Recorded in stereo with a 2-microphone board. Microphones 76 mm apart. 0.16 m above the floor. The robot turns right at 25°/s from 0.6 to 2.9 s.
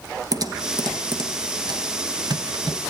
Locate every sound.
0.3 s typing on a keyboard: 55° right (ahead or behind), 1.2 m